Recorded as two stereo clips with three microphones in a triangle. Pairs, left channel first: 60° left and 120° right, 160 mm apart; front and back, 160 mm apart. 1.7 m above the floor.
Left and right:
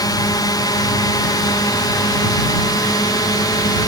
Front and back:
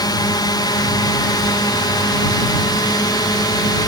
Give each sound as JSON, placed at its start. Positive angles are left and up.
{"t": 0.0, "sound": "a drone", "azimuth_deg": 30}